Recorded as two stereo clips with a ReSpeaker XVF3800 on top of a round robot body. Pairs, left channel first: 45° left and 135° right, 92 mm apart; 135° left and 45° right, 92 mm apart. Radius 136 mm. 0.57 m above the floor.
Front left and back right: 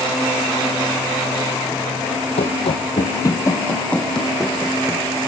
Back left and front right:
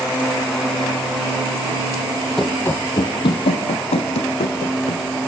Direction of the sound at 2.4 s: 50° left.